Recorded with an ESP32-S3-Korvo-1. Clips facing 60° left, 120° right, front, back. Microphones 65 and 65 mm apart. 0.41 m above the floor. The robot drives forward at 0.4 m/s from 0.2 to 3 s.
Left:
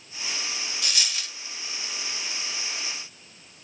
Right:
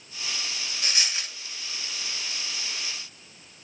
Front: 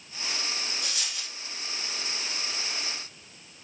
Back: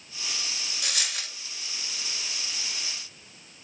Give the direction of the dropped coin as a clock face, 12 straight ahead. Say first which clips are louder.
Right 3 dB, back 3 dB; 6 o'clock.